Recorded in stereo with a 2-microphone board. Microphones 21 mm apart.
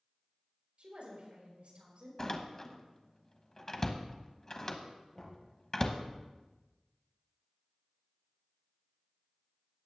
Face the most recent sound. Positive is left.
turn(degrees=35)  # may be behind; listen again after turning